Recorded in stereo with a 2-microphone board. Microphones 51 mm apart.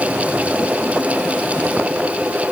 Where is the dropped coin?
No dropped coin in this recording.